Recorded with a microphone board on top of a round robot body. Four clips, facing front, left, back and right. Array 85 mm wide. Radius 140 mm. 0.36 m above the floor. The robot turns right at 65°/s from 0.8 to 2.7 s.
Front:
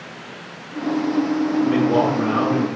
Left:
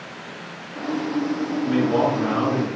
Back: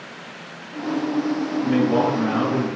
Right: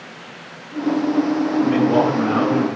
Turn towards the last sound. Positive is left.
turn(degrees=-40)